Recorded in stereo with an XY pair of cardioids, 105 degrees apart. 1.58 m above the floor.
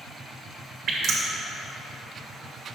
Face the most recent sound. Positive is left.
turn(degrees=-55)